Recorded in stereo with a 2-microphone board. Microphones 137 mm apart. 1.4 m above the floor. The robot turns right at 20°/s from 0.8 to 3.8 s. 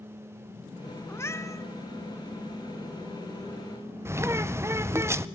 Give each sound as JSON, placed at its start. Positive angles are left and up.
{"t": 1.1, "sound": "a cat meowing", "side_deg": 20, "distance_m": 1.3}
{"t": 4.0, "sound": "a bird", "side_deg": -20, "distance_m": 0.6}